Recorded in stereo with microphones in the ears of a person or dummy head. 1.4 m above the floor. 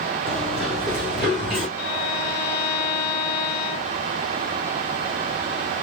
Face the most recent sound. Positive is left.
turn(degrees=50)  # may be behind; listen again after turning